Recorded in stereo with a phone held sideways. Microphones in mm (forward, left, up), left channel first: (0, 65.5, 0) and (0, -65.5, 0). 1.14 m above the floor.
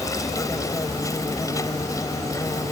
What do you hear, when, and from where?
0.0 s an insect: 25° left (ahead or behind)